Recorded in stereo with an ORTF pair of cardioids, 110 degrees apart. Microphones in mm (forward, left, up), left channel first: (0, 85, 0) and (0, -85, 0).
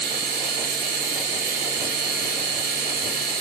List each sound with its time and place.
0.0 s a machine running: 70° right, 0.8 m